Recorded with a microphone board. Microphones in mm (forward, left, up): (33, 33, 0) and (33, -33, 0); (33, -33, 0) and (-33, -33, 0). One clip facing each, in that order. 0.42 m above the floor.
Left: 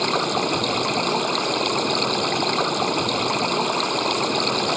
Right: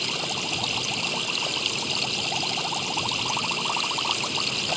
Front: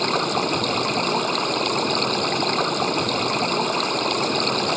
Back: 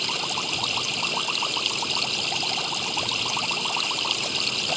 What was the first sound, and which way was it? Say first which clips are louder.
Running water: left 10 dB, front 9 dB; 50° left.